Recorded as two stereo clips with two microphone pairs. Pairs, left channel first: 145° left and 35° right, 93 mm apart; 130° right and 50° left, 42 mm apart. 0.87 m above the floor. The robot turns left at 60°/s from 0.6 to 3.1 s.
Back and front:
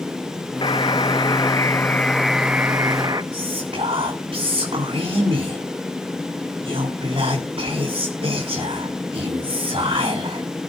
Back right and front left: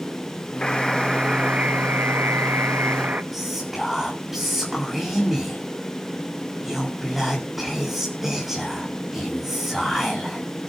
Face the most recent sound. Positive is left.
turn(degrees=-35)